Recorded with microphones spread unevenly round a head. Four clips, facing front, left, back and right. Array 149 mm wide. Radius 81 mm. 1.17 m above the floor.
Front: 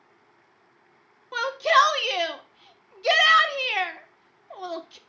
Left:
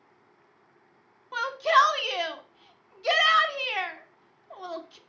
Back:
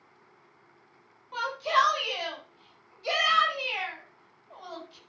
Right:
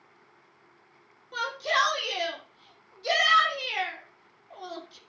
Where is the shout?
10° left, 2.5 m.